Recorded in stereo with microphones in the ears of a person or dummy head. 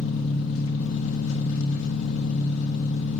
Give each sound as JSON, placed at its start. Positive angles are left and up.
{"t": 0.0, "sound": "an engine running", "side_deg": 75, "distance_m": 1.4}